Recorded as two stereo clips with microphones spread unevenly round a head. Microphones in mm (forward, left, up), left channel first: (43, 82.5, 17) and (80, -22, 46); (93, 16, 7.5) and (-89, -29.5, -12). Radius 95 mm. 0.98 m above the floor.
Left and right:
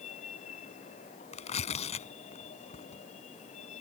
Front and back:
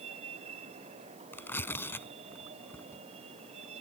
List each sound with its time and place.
0.0 s a vehicle: 135° left
1.3 s tearing paper: 90° left